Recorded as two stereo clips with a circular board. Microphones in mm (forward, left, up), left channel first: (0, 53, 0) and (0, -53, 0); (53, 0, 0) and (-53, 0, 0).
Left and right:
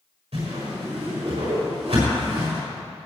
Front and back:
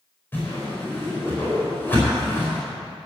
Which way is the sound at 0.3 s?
70° right.